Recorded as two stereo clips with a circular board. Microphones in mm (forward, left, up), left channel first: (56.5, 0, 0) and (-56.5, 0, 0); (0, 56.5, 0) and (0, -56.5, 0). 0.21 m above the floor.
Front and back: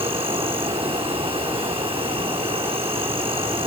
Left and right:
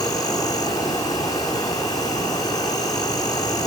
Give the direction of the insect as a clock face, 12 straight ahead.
7 o'clock.